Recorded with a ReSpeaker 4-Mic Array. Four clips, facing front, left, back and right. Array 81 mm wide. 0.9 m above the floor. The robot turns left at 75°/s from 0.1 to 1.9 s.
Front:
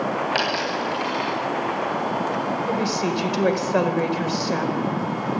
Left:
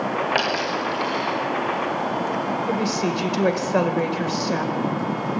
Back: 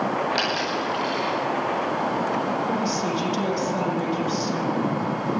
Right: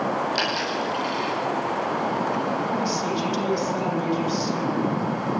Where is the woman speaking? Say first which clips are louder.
Left 2 dB, front 1 dB; 50° left, 4.5 m.